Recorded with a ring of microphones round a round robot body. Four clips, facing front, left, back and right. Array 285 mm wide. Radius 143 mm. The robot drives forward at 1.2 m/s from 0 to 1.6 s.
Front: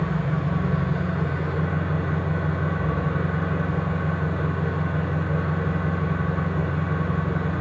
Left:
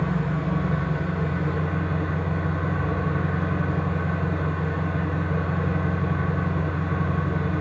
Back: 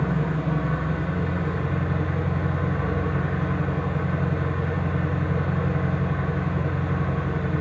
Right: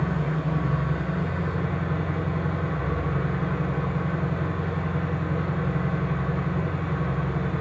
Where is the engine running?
170° right, 7.5 m.